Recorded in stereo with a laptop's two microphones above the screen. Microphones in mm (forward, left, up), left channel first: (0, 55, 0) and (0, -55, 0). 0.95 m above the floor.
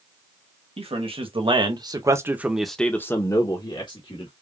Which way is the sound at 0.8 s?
65° right (ahead or behind).